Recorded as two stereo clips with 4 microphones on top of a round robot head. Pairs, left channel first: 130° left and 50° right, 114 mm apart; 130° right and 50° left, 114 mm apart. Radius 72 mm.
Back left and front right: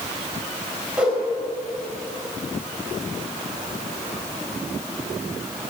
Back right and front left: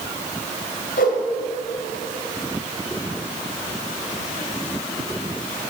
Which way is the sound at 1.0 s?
130° right.